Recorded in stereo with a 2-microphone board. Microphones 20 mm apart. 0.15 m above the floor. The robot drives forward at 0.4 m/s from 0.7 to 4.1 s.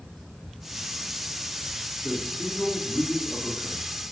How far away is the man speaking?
About 3.5 m.